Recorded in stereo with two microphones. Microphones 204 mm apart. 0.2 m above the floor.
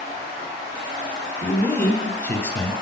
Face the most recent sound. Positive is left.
turn(degrees=10)  # may be behind; listen again after turning